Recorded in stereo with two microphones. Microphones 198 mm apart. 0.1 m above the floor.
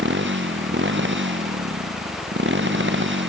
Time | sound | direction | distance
0.0 | a motorcycle | 70° right (ahead or behind) | ?